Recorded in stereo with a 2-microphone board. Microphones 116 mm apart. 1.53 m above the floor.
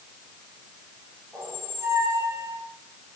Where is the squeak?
20° right (ahead or behind), 6 m.